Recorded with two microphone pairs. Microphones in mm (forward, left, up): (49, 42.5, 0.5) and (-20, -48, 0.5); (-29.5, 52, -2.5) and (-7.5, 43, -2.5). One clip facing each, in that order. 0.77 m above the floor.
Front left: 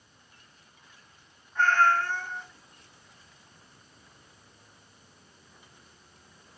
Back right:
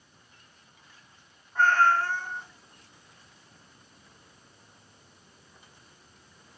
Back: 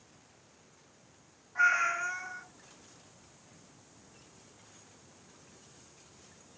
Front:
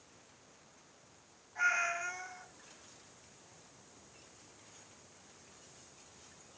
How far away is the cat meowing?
About 2.5 m.